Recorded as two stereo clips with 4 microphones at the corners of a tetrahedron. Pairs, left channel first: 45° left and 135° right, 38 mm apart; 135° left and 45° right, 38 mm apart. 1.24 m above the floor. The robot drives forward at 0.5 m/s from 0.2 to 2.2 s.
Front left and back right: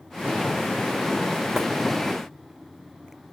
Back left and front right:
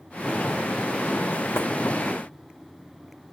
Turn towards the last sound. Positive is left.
turn(degrees=145)